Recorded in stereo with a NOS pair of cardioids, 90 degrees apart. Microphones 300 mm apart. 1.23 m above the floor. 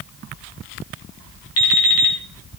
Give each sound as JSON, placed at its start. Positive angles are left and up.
{"t": 1.6, "sound": "an alarm clock", "azimuth_deg": 55, "distance_m": 4.0}